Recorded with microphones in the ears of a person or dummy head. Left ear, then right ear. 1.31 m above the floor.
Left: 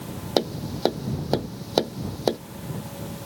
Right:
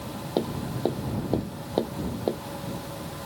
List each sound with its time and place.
0.4 s tapping: 55° left (ahead or behind)